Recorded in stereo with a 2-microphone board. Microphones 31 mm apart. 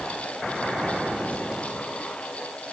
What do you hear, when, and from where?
Only background noise.